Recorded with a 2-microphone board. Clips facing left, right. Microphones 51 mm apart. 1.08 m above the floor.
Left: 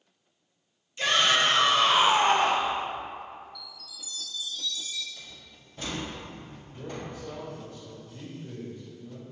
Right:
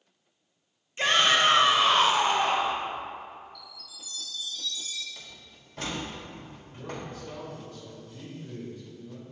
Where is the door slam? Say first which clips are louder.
Even; 70° right (ahead or behind), 1.6 m.